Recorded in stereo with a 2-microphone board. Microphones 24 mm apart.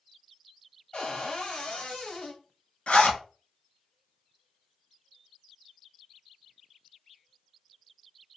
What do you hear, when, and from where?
0.9 s a cupboard door: 50° left (ahead or behind), 1.4 m
2.9 s a zipper: 55° left (ahead or behind), 1.1 m